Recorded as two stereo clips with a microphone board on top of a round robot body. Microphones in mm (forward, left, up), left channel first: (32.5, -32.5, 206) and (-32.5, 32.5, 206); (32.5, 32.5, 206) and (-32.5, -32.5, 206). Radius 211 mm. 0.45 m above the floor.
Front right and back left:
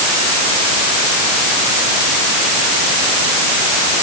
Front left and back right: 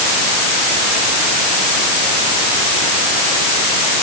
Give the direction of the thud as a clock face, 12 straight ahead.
No thud in this recording.